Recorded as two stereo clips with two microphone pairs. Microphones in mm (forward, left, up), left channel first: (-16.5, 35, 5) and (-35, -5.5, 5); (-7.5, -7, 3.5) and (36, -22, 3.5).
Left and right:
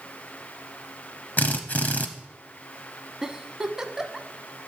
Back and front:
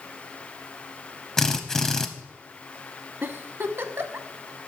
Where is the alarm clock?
I don't hear an alarm clock.